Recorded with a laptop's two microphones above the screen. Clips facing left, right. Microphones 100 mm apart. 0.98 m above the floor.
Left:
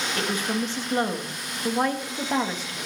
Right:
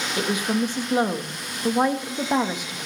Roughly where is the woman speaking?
Centre.